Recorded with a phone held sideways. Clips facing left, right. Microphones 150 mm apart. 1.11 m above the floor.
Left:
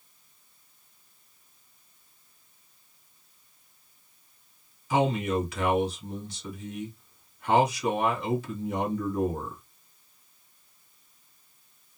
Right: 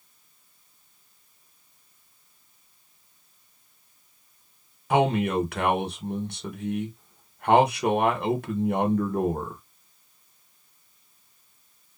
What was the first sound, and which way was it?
A man speaking, 55° right (ahead or behind).